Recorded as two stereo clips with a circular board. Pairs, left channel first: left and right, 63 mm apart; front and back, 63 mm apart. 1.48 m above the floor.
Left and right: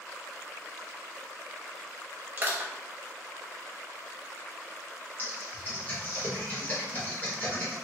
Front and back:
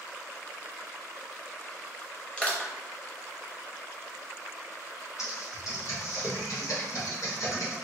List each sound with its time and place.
2.4 s crushing: 60° right, 0.9 m
5.2 s typing on a keyboard: 30° left, 1.5 m